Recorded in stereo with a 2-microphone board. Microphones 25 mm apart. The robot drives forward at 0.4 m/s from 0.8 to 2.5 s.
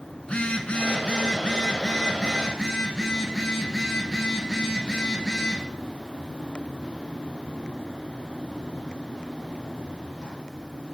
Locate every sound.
0.2 s a phone buzzing: 55° left (ahead or behind), 0.7 m; by 5.6 s 25° left (ahead or behind), 1.2 m